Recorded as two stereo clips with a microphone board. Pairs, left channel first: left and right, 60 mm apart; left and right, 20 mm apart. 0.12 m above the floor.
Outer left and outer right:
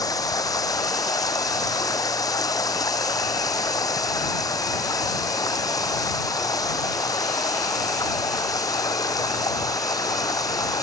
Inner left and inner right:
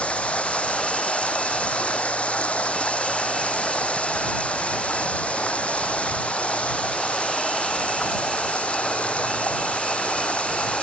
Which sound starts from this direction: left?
Running water, at 0.0 s.